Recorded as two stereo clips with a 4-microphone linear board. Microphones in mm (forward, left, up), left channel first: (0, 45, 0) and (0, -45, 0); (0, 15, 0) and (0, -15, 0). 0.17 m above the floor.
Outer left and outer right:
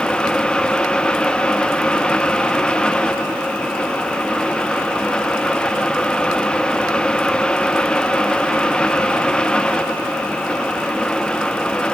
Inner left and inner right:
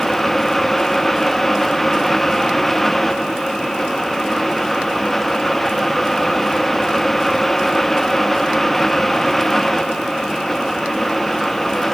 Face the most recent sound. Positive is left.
No sound to turn to.